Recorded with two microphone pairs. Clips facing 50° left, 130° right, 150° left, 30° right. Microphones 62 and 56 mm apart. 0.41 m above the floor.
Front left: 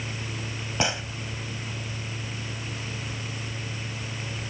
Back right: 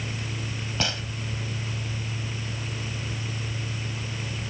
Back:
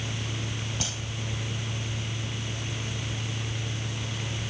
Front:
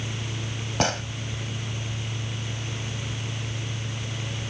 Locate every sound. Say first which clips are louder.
0.8 s a gunshot: front left 3 dB, front 11 dB; 20° right